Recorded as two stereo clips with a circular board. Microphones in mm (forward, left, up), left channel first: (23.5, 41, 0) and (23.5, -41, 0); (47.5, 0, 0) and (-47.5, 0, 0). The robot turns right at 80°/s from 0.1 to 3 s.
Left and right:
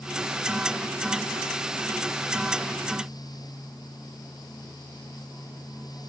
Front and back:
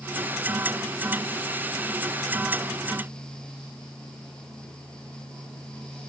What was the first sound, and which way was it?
Only background noise.